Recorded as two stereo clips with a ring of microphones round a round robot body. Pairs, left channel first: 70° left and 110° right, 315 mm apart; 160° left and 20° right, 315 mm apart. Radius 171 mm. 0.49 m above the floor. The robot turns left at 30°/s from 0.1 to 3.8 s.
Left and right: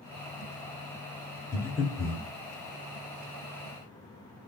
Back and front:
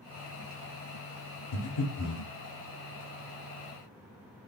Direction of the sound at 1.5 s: 145° left.